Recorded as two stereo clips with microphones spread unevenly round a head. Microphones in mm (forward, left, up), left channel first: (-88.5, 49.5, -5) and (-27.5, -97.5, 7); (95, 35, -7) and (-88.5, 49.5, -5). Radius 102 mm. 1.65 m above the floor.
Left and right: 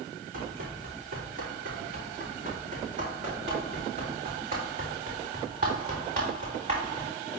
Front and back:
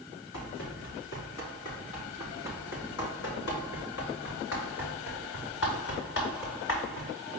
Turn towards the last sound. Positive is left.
turn(degrees=0)